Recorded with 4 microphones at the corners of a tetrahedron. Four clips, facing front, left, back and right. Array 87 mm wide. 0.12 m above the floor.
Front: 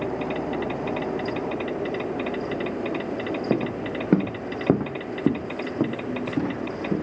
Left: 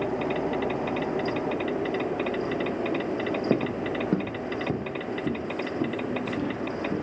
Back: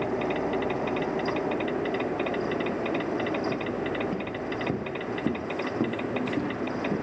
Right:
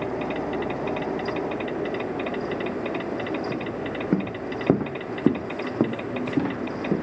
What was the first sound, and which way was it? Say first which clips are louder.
Footsteps: left 3 dB, front 4 dB; 40° left.